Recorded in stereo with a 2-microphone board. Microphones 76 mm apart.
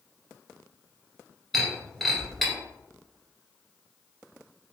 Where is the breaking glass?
5° left (ahead or behind), 1.7 m.